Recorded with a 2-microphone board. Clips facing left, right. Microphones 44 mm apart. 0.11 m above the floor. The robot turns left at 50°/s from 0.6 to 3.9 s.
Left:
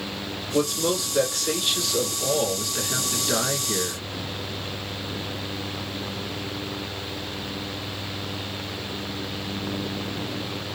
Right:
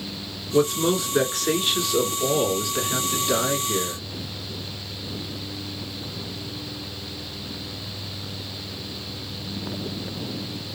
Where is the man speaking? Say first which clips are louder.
Right 3 dB; 25° right (ahead or behind), 1.2 m; by 4.0 s 20° left (ahead or behind), 1.2 m.